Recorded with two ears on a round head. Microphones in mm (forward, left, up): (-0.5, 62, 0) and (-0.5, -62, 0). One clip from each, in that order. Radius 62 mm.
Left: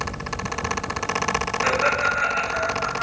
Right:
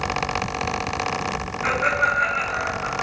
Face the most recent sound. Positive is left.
turn(degrees=70)  # may be behind; listen again after turning